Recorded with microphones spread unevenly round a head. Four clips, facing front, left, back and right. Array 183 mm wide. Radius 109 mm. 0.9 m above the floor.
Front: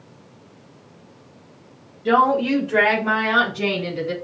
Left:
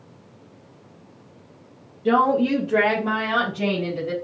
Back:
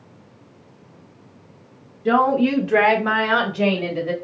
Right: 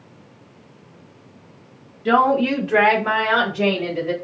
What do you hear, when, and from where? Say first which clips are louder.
2.0 s a woman speaking: right 2 dB, even; 155° left, 0.9 m; by 4.1 s 175° right, 2.5 m